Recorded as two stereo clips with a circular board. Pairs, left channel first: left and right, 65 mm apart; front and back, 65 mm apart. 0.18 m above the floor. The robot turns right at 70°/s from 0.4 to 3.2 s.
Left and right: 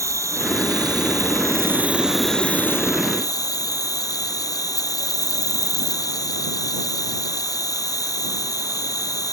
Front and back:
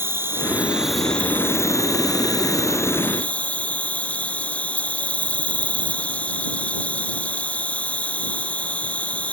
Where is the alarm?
No alarm in this recording.